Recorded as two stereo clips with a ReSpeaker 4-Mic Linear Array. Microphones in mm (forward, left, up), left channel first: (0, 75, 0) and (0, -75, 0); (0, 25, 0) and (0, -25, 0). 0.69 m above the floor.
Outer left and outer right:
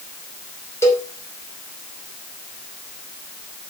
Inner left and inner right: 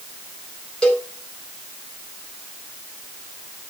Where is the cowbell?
20° left (ahead or behind), 4.5 m.